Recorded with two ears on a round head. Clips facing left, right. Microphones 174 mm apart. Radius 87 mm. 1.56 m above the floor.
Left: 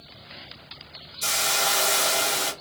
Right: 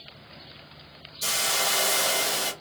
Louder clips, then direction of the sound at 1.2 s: Left 2 dB; 5° right (ahead or behind).